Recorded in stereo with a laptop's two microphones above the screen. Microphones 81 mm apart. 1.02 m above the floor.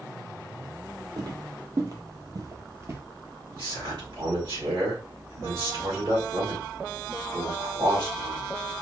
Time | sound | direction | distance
1.2 | footsteps | 55° right (ahead or behind) | 2.0 m
3.5 | a man speaking | 70° right (ahead or behind) | 3 m